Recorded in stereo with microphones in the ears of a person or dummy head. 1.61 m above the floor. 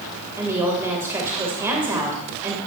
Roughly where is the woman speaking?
Right.